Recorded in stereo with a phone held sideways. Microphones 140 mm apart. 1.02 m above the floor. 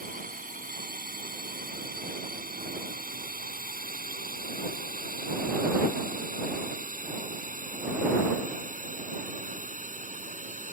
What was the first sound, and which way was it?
A drone, 80° right.